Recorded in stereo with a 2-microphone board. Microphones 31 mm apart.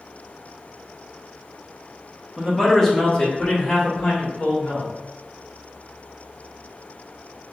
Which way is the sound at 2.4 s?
10° right (ahead or behind).